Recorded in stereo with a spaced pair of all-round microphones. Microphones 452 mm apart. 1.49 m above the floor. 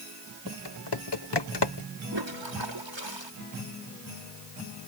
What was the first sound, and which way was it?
Typing on a keyboard, 60° left (ahead or behind).